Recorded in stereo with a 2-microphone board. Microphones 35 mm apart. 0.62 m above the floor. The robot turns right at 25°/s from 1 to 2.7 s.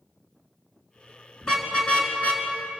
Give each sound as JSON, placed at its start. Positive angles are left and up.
{"t": 1.4, "sound": "a car horn", "side_deg": 15, "distance_m": 4.5}